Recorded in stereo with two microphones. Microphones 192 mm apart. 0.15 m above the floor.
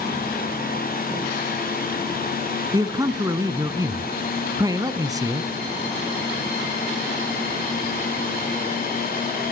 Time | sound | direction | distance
2.7 | a man speaking | 20° right (ahead or behind) | 1.2 m